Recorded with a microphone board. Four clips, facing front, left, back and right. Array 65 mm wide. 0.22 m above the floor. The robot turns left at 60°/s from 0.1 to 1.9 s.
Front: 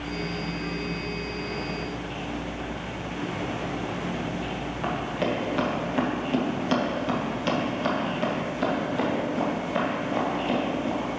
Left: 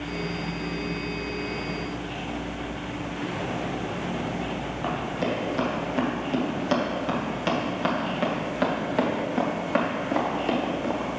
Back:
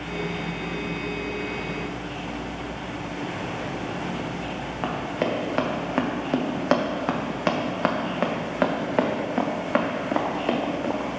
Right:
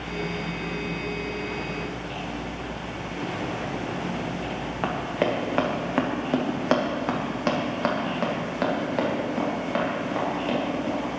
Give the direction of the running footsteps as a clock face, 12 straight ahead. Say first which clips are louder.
Right 3 dB, back 1 dB; 4 o'clock.